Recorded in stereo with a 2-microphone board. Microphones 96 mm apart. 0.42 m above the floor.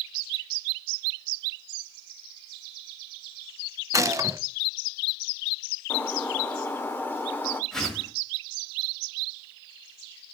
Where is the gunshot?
35° right (ahead or behind), 0.6 m.